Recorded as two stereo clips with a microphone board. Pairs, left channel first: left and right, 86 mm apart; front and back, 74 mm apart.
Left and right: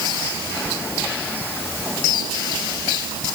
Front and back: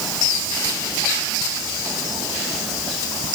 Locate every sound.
Only background noise.